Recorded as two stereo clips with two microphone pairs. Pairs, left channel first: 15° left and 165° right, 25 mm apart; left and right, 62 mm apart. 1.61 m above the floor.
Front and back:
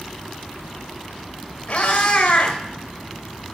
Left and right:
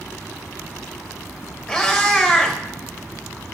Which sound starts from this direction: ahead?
A cat meowing, at 1.7 s.